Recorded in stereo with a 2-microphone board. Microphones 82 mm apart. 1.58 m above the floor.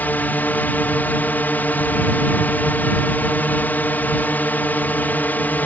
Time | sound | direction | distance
0.0 | a drone | 20° left (ahead or behind) | ?